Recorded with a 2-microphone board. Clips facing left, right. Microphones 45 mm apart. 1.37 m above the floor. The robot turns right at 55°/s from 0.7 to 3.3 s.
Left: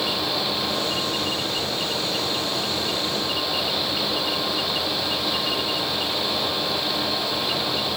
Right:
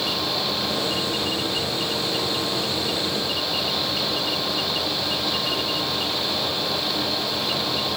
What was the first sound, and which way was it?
Only background noise.